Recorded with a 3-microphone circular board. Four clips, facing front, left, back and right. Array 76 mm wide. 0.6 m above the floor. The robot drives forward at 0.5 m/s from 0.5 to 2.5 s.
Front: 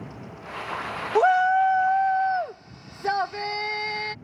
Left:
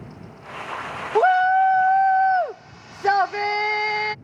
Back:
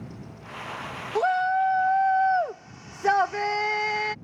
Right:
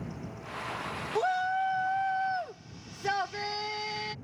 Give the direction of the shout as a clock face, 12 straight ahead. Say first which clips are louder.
Left 12 dB, front 4 dB; 10 o'clock.